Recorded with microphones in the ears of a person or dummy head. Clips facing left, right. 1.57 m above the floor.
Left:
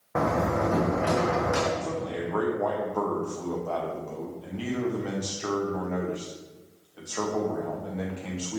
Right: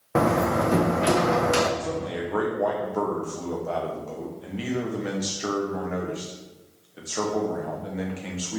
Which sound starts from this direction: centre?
A man speaking, at 1.8 s.